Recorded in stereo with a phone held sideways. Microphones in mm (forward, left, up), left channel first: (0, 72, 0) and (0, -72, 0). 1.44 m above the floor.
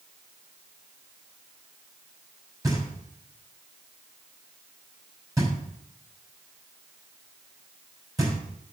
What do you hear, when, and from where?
2.6 s knocking: 25° right (ahead or behind), 5.5 m